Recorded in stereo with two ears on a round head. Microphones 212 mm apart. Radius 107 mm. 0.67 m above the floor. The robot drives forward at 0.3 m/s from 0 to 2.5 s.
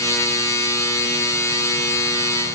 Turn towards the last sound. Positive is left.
No sound to turn to.